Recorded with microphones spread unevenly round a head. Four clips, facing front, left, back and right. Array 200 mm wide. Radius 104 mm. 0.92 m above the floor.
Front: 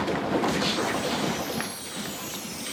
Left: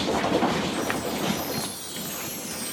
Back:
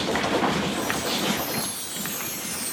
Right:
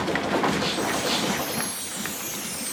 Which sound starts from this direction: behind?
A chime, at 0.7 s.